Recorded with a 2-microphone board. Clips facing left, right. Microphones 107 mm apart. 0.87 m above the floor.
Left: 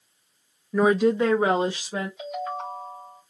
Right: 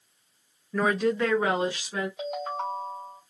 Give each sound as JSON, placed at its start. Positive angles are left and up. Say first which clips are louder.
{"t": 0.7, "sound": "a woman speaking", "louder": "left 5 dB", "side_deg": 15, "distance_m": 0.5}
{"t": 2.2, "sound": "a ringtone", "louder": "even", "side_deg": -75, "distance_m": 2.5}